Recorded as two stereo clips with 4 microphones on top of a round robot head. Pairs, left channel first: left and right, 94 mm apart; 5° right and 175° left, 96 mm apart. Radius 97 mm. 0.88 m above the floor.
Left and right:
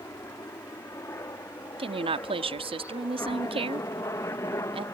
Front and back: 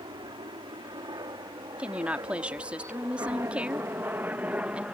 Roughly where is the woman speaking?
Right.